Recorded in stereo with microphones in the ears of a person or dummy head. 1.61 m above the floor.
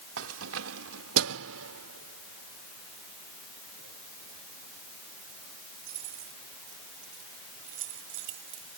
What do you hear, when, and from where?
0.2 s keys jangling: 80° right; by 8.8 s 70° right (ahead or behind)